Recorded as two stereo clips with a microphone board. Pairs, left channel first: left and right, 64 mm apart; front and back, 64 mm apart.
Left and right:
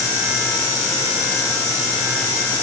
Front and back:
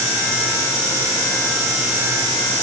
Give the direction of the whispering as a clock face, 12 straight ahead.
No whispering in this recording.